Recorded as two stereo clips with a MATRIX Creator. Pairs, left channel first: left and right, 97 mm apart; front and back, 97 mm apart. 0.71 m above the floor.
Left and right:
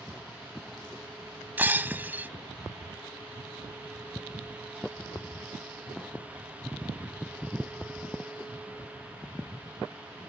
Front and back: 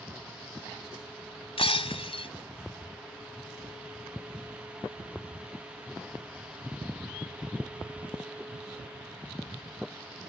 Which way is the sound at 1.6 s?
20° right.